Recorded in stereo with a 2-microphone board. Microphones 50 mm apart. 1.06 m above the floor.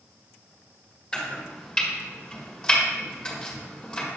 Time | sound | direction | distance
1.1 | chopping | 15° left (ahead or behind) | 1.9 m